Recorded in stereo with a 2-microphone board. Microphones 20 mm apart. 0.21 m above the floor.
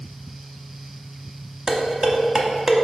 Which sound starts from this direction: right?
Dishes clattering, at 1.7 s.